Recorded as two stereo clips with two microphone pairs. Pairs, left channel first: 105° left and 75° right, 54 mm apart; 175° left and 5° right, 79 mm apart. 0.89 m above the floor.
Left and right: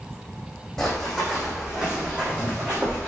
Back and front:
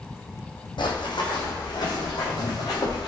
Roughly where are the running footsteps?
Behind.